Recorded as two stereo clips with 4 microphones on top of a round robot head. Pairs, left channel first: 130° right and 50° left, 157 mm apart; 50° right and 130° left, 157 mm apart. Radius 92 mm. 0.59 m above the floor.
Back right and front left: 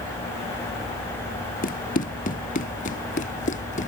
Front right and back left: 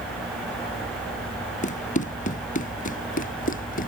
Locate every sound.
1.6 s running footsteps: 90° right; by 3.9 s 85° right